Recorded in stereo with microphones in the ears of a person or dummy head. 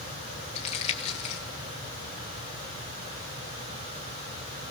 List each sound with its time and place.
0.6 s crumpling: 30° left (ahead or behind), 1.4 m